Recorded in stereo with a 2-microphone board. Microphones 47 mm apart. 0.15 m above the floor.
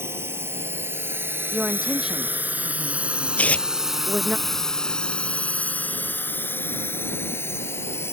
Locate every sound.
0.0 s a drone: 60° right (ahead or behind); by 8.1 s 60° left (ahead or behind)
1.5 s a woman speaking: 15° right (ahead or behind)
3.4 s tearing paper: 30° left (ahead or behind)